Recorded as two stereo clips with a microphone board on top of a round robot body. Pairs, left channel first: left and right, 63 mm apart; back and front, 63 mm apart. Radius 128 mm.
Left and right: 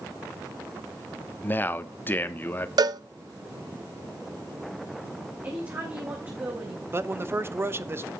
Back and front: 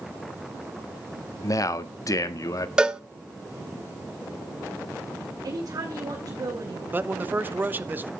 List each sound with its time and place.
1.4 s a man speaking: 145° left, 1.4 m
2.8 s a cowbell: 80° right, 0.7 m
5.4 s a woman speaking: 35° right, 4 m
6.9 s a man speaking: 55° right, 1.3 m